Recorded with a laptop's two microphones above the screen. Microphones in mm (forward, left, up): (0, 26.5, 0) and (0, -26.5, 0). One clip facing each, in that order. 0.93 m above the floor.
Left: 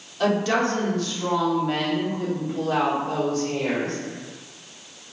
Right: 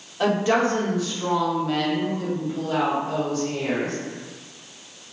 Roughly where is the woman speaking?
Right.